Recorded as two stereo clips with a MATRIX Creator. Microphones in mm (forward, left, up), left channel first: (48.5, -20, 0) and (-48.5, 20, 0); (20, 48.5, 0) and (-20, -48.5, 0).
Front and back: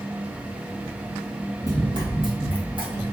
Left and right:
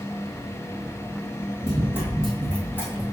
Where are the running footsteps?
155° right, 1.4 m; by 3.0 s 130° left, 1.9 m.